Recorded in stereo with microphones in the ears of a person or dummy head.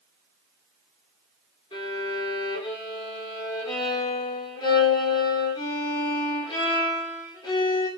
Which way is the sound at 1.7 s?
30° left (ahead or behind).